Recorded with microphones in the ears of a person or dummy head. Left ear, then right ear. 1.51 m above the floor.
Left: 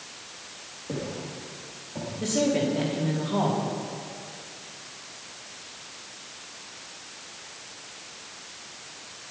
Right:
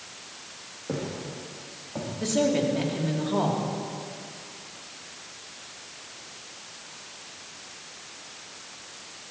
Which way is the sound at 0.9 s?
60° right (ahead or behind).